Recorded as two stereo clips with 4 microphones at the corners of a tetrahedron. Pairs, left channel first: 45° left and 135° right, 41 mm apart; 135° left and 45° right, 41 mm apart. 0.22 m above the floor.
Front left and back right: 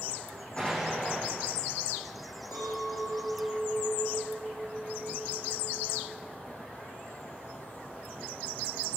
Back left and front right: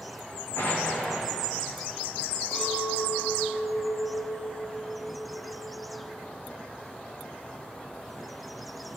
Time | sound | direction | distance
0.6 | an explosion | 105° left | 7.5 m
2.5 | a clink | 40° left | 7.5 m